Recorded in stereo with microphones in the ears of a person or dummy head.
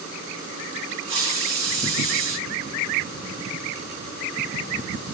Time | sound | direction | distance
1.1 | a hiss | 30° right (ahead or behind) | 2 m